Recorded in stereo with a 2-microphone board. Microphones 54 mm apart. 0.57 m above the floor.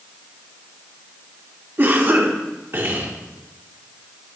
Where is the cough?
40° right (ahead or behind), 1.5 m.